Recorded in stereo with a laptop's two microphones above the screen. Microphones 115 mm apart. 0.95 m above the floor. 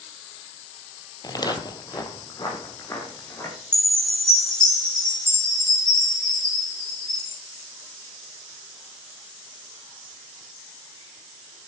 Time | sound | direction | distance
1.2 | footsteps | 35° left (ahead or behind) | 1.1 m
3.7 | a chime | 10° left (ahead or behind) | 4.5 m